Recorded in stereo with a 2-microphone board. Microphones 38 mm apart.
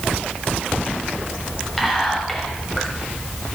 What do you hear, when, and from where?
1.8 s whispering: 5° left (ahead or behind), 1.5 m